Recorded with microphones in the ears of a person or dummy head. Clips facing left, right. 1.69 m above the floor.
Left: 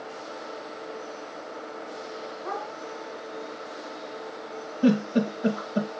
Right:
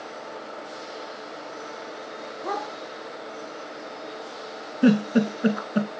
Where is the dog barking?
50° right (ahead or behind), 7 m.